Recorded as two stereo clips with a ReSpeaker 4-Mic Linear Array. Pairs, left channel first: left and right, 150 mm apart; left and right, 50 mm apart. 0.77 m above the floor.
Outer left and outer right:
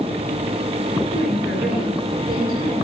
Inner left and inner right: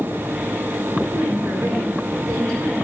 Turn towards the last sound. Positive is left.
turn(degrees=-80)